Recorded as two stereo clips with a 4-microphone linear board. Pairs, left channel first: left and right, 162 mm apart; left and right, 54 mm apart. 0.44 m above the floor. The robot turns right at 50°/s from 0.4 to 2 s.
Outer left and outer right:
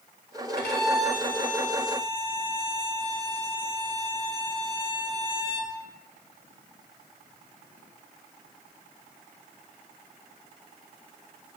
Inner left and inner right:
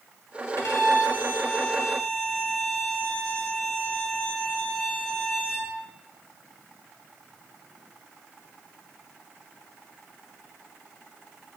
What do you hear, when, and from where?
0.6 s a violin: 80° left, 0.6 m; by 5.8 s 150° left, 0.6 m